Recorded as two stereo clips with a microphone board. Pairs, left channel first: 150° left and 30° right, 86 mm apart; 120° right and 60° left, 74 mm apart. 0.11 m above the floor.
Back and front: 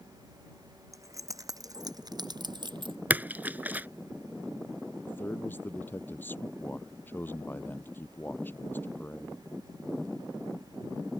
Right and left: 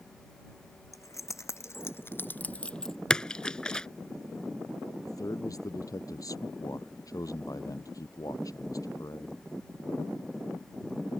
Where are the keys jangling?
80° right; by 3.0 s 35° right.